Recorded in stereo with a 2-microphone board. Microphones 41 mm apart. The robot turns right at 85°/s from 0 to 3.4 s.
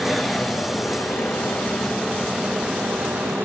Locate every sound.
0.0 s an engine running: 15° right, 6 m; by 3.5 s 85° right, 6 m